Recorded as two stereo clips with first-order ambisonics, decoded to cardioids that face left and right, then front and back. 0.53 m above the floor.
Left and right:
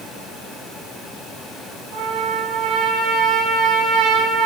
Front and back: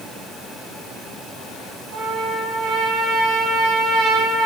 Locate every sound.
1.9 s a trumpet: 120° right, 4.5 m